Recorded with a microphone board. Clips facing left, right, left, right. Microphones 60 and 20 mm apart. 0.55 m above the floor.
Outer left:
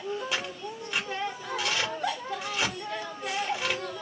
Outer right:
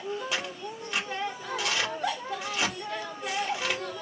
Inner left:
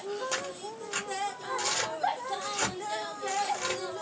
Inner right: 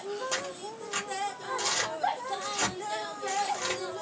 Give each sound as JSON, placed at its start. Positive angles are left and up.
{"t": 0.3, "sound": "tearing paper", "side_deg": 0, "distance_m": 1.6}